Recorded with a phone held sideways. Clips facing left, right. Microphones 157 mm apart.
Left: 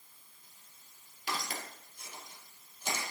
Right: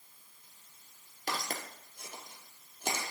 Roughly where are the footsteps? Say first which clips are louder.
Right 1 dB; right.